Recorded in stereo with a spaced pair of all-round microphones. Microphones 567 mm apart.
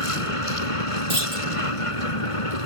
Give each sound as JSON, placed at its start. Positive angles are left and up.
{"t": 0.0, "sound": "a vehicle", "side_deg": 65}
{"t": 1.1, "sound": "a clunk", "side_deg": -65}